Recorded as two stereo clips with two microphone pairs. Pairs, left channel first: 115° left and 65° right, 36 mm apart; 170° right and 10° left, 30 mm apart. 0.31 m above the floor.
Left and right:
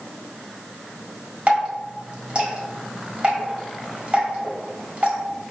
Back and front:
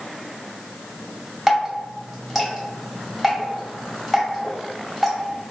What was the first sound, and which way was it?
Dripping, 85° right.